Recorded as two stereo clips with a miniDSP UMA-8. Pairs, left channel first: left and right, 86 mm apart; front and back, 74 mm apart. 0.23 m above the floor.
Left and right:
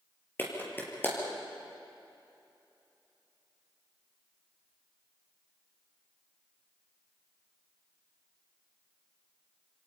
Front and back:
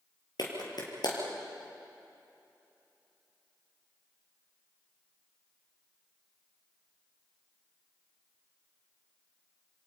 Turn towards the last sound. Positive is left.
turn(degrees=25)